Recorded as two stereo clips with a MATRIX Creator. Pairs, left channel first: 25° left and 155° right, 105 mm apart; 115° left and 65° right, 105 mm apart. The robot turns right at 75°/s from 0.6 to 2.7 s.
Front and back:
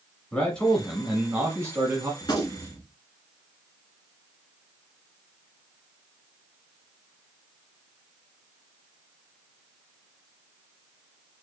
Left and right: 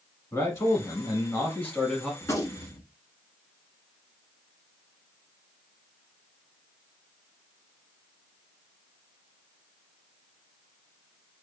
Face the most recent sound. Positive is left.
turn(degrees=90)